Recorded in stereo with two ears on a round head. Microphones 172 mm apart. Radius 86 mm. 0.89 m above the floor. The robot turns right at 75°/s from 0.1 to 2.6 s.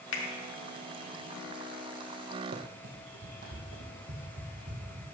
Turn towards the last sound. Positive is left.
turn(degrees=-45)  # may be behind; listen again after turning